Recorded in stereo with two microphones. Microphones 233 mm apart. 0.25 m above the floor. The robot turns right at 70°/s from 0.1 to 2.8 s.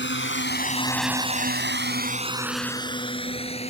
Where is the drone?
55° left (ahead or behind); by 3.7 s 25° left (ahead or behind).